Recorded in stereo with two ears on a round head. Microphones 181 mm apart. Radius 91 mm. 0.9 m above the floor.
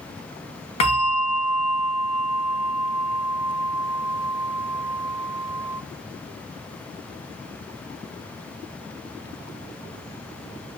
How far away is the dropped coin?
No dropped coin in this recording.